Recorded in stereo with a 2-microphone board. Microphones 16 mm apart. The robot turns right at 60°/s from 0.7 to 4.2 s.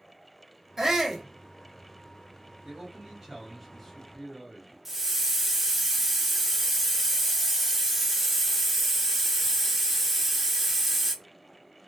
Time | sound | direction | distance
0.8 | a shout | 20° right (ahead or behind) | 0.7 m
2.6 | a man speaking | 65° right | 1.2 m
4.8 | a hiss | 10° right (ahead or behind) | 0.6 m